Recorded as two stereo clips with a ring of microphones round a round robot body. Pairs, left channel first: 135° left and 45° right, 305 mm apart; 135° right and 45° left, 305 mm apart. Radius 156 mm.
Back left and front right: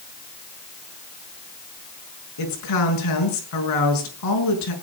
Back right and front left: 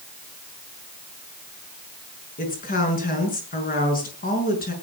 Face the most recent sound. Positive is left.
turn(degrees=165)